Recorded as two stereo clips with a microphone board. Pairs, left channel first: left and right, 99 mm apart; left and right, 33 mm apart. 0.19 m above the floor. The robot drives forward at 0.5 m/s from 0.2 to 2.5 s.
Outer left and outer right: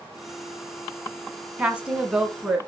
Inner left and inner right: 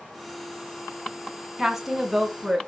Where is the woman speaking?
10° right (ahead or behind), 1.2 m.